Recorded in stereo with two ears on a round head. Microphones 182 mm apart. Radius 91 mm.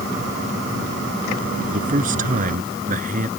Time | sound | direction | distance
1.7 | a man speaking | 40° right (ahead or behind) | ?